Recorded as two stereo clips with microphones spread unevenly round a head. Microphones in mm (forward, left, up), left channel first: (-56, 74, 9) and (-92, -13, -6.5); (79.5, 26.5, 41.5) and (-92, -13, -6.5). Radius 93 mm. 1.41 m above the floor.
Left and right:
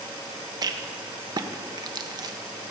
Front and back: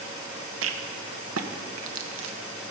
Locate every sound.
0.6 s a rattle: 160° right, 1.2 m